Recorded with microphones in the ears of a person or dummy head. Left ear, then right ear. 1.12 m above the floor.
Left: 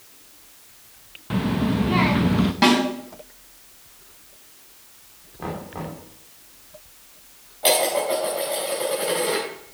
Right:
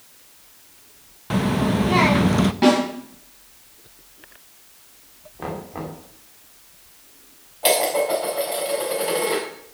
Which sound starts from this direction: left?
A snare drum, at 2.6 s.